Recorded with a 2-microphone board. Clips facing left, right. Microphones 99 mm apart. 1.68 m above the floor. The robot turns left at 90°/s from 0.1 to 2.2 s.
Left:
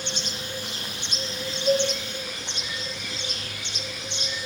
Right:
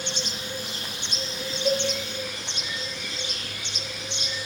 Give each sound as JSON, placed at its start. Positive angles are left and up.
{"t": 1.6, "sound": "a cowbell", "side_deg": -60, "distance_m": 0.6}